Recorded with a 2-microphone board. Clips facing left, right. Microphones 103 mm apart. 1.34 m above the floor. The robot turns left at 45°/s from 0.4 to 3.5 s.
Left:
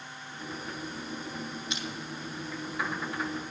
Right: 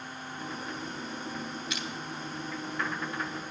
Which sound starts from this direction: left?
Crushing, at 1.7 s.